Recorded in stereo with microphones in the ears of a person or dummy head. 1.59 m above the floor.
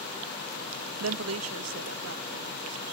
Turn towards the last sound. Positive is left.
turn(degrees=-75)  # may be behind; listen again after turning